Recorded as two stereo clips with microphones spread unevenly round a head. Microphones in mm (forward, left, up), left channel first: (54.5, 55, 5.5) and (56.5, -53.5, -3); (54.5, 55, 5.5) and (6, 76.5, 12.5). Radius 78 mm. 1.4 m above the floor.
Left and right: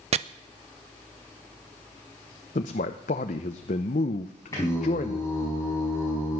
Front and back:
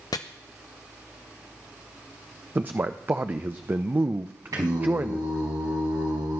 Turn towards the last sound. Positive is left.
turn(degrees=160)